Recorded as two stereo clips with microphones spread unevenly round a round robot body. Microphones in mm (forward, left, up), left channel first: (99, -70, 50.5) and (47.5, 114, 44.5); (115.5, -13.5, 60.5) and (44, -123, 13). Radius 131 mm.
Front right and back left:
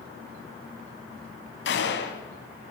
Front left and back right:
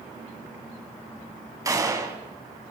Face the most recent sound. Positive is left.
turn(degrees=-60)